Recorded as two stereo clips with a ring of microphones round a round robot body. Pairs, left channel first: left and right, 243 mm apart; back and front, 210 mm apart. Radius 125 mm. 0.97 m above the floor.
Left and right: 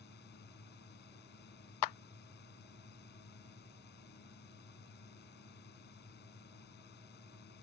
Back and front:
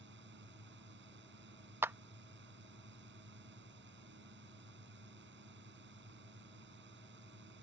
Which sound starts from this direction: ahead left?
A drone, at 0.0 s.